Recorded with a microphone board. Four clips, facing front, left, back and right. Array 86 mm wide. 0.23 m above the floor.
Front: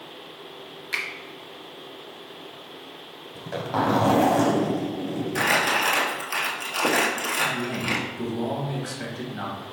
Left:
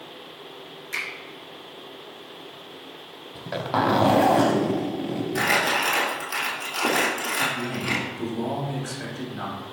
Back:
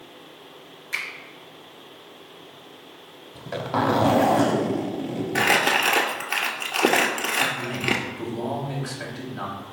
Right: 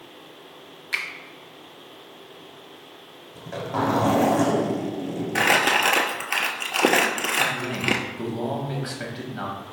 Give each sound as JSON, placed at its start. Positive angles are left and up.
{"t": 0.9, "sound": "a finger snap", "azimuth_deg": -55, "distance_m": 0.9}
{"t": 3.4, "sound": "a zipper", "azimuth_deg": 110, "distance_m": 0.6}
{"t": 5.3, "sound": "crumpling", "azimuth_deg": -130, "distance_m": 0.8}
{"t": 7.4, "sound": "a man speaking", "azimuth_deg": -100, "distance_m": 1.0}